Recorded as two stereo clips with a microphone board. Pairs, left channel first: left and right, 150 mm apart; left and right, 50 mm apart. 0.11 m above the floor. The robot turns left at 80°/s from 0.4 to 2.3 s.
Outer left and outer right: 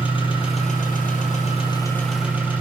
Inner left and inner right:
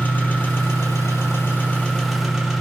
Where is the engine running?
140° left, 2.5 m; by 2.6 s 10° right, 2.5 m.